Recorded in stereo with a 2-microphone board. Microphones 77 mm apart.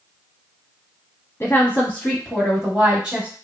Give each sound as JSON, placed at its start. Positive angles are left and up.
{"t": 1.4, "sound": "a woman speaking", "side_deg": 30, "distance_m": 1.2}